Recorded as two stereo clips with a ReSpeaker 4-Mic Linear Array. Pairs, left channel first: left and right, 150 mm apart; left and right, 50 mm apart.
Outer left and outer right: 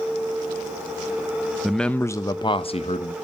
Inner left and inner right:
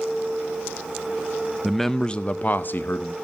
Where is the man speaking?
5° right (ahead or behind), 0.6 m; by 3.1 s 55° left (ahead or behind), 0.8 m.